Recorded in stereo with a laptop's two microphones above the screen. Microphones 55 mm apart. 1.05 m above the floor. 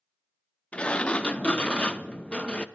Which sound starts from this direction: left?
A sliding door, at 0.7 s.